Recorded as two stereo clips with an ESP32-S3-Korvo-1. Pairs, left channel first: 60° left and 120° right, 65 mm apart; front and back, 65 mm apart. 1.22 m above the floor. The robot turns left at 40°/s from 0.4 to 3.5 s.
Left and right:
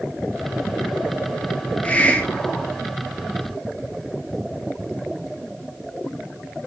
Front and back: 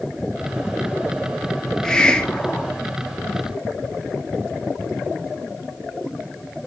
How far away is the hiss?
About 0.7 m.